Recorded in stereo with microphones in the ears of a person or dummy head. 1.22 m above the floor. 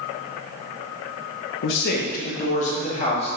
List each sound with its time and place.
1.6 s a man speaking: 75° left (ahead or behind), 0.8 m; by 3.3 s 45° left (ahead or behind), 2 m